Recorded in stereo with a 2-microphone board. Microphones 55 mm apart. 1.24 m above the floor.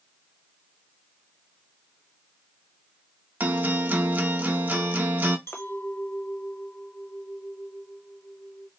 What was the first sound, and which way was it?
A guitar, 35° right (ahead or behind).